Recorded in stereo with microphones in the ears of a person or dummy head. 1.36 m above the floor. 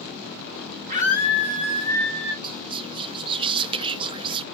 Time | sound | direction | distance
0.9 | a scream | 40° right (ahead or behind) | 5.5 m
2.4 | whispering | 25° right (ahead or behind) | 1.0 m